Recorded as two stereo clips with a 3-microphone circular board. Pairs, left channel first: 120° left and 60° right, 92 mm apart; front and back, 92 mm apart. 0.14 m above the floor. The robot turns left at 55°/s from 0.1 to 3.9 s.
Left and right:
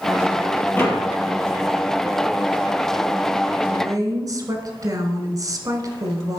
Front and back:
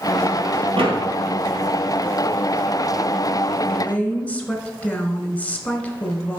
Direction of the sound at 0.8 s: 175° right.